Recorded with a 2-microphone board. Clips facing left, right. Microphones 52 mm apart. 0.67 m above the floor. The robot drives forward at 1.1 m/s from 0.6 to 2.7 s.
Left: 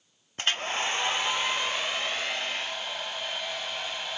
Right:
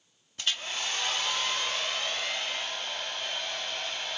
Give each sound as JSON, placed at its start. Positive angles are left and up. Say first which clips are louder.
{"t": 0.4, "sound": "a hair dryer", "louder": "left 5 dB", "side_deg": 40, "distance_m": 0.6}